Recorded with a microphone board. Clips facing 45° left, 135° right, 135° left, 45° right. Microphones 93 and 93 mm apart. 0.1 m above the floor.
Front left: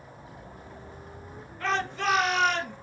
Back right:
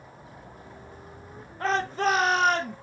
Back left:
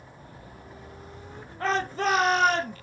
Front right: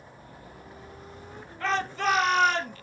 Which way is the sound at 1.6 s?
Straight behind.